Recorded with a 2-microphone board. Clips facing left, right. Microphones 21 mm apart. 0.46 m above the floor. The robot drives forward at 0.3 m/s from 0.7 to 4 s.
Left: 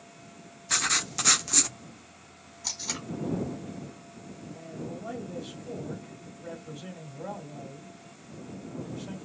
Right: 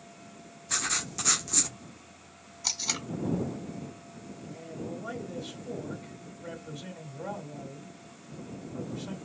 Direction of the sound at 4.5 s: 25° right (ahead or behind).